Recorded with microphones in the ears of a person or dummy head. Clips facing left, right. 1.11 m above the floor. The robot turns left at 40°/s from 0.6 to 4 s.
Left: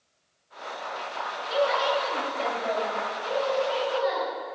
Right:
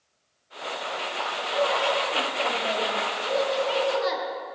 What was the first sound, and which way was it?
A woman speaking, 40° left.